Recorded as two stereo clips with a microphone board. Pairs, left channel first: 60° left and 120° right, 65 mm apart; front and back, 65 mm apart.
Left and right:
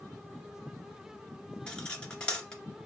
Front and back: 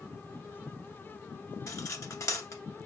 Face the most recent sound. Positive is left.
turn(degrees=-10)